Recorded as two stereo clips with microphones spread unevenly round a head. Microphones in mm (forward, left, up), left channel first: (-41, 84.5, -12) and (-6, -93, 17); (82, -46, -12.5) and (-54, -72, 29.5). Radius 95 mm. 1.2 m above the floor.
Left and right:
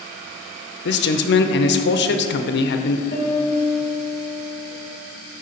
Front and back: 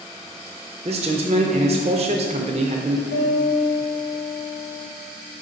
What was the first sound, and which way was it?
A man speaking, 130° left.